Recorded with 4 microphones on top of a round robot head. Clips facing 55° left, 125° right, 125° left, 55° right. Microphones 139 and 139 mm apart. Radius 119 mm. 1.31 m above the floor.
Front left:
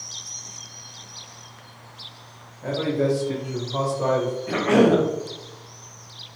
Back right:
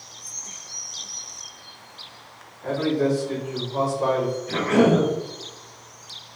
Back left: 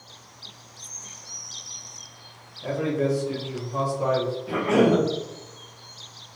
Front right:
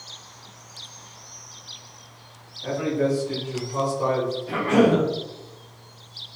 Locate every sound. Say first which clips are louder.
2.6 s a man speaking: back right 1 dB, front right 1 dB; 75° left, 1.6 m; by 4.4 s 35° left, 1.6 m
4.5 s a cough: front left 2 dB, front right 1 dB; 45° left, 0.8 m